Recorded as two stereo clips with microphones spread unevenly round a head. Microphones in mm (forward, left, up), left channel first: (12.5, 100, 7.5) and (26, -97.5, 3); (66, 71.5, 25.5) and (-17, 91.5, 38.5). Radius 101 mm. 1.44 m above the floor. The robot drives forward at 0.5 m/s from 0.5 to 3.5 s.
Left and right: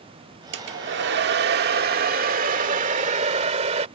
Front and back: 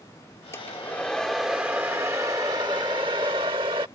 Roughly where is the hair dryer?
Right.